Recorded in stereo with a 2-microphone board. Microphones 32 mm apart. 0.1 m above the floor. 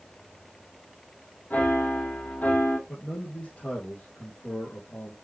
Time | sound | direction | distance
1.5 | a piano | 60° left (ahead or behind) | 2.5 m
2.9 | a man speaking | 35° left (ahead or behind) | 3 m